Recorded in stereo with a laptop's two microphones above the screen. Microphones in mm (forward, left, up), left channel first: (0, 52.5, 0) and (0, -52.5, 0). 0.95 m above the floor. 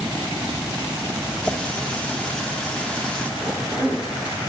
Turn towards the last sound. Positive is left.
turn(degrees=-30)  # may be behind; listen again after turning